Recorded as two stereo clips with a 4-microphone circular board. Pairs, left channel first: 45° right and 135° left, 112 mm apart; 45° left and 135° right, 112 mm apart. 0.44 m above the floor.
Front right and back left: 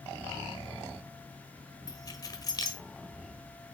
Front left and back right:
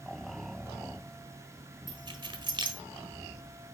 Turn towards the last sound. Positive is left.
turn(degrees=-95)